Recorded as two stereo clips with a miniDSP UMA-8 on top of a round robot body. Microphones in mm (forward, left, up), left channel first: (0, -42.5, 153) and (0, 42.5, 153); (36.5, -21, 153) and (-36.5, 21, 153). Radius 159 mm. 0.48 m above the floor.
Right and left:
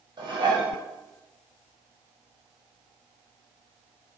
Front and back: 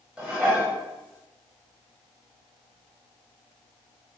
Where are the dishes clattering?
75° left, 1.1 m.